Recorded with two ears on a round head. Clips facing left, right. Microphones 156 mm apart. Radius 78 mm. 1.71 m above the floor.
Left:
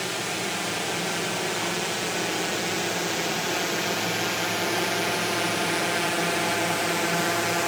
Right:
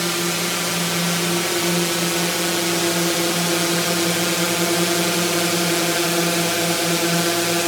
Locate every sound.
0.0 s a drone: 65° right (ahead or behind); by 7.7 s 45° right (ahead or behind)